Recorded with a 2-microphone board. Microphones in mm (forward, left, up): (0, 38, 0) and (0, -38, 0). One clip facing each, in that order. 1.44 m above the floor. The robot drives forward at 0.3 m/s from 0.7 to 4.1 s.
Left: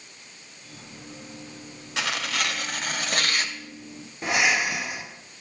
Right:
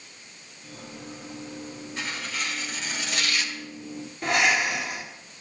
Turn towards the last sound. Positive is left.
turn(degrees=5)  # may be behind; listen again after turning